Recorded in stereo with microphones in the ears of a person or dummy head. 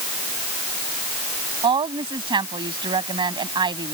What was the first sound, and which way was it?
A woman speaking, 25° right (ahead or behind).